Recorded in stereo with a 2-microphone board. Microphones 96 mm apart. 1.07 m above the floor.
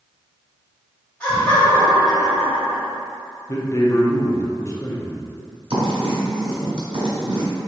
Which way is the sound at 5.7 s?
55° right (ahead or behind).